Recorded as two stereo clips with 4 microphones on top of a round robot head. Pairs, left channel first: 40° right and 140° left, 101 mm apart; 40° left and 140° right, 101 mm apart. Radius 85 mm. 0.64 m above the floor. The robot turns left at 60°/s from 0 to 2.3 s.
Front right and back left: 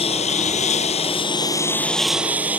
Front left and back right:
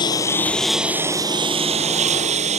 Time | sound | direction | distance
0.0 | a lawn mower | 10° right | ?